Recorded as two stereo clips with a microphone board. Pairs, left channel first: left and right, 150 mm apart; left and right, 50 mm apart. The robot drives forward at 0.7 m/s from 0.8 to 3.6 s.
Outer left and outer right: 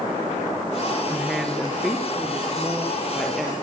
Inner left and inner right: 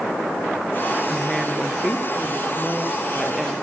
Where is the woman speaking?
Centre (ahead or behind), 1.9 m.